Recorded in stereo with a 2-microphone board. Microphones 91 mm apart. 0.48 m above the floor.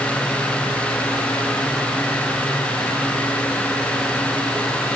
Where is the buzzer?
No buzzer in this recording.